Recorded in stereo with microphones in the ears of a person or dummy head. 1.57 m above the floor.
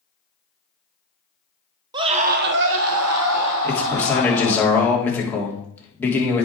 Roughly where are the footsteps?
I don't hear footsteps.